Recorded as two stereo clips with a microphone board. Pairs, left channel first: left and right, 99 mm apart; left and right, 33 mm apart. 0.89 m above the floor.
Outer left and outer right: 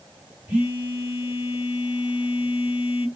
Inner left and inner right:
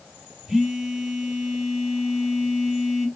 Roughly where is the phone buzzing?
Centre.